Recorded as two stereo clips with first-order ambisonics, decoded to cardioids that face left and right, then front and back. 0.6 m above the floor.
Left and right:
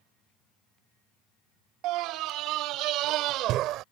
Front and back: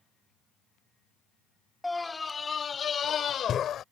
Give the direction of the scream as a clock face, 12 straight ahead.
3 o'clock.